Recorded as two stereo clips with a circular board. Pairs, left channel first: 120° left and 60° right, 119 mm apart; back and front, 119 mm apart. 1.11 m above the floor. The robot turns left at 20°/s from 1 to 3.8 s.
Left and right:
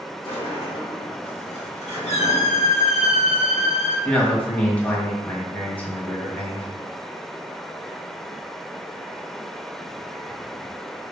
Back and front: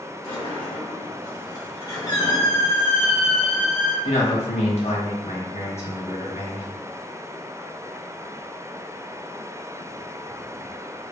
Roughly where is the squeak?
Behind left.